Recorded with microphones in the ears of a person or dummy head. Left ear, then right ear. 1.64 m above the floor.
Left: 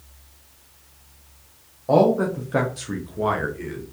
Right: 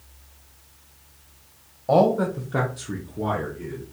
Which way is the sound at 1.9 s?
10° right (ahead or behind).